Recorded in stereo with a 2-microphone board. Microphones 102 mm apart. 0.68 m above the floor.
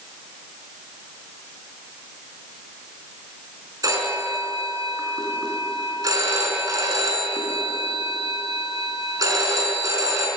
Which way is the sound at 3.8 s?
35° right (ahead or behind).